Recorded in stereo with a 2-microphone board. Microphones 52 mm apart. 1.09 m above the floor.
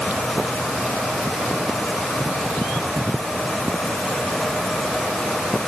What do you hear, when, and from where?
Only background noise.